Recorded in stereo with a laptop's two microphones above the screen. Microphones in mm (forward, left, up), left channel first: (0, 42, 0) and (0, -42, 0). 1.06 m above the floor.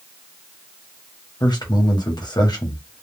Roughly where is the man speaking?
Left.